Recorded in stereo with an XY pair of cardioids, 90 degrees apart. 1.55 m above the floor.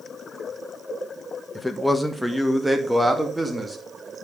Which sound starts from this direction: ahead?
A man speaking, at 1.6 s.